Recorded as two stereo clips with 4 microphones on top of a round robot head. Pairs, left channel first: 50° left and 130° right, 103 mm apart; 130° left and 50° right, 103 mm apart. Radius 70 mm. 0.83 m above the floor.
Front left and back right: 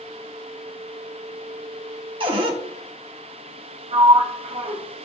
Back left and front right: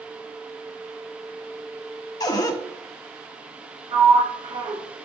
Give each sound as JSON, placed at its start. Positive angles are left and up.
{"t": 2.2, "sound": "a cupboard door", "azimuth_deg": -175, "distance_m": 1.2}
{"t": 3.9, "sound": "a sliding door", "azimuth_deg": -95, "distance_m": 1.1}